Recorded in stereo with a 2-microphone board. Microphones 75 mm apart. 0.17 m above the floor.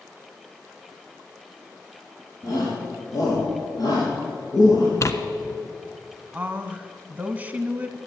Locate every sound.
2.4 s a shout: 45° left (ahead or behind), 5.5 m; by 4.9 s 65° left (ahead or behind), 4 m
5.0 s tearing paper: 45° left (ahead or behind), 1.1 m
6.3 s a woman speaking: 20° right (ahead or behind), 1.1 m